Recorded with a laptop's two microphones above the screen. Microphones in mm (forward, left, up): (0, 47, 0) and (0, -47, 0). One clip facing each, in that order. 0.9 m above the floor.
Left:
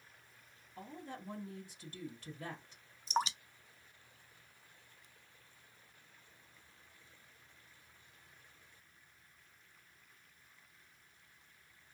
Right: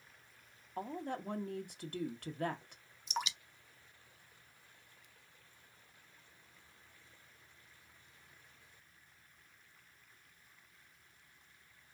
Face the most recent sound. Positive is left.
turn(degrees=35)  # may be behind; listen again after turning